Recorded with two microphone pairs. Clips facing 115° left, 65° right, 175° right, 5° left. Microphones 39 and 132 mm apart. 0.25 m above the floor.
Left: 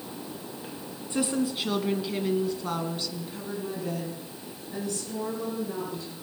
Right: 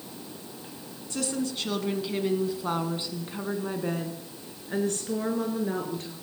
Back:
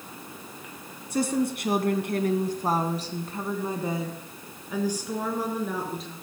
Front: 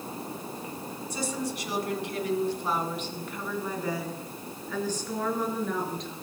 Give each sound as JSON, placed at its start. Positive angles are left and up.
{"t": 1.1, "sound": "a woman speaking", "azimuth_deg": 180, "distance_m": 2.0}